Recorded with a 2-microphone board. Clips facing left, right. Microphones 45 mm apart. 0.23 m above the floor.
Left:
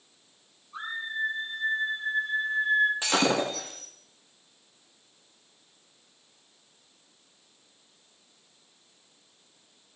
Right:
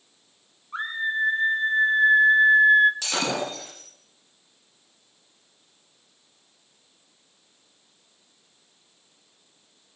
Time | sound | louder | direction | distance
0.7 | a scream | right 7 dB | 60° right (ahead or behind) | 3.5 m
3.0 | breaking glass | left 2 dB | 25° left (ahead or behind) | 8 m